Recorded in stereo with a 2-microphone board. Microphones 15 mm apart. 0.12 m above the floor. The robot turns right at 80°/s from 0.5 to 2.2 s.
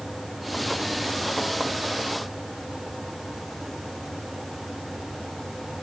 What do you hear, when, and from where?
Only background noise.